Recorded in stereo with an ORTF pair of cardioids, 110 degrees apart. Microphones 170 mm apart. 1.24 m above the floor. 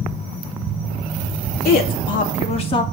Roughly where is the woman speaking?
Ahead left.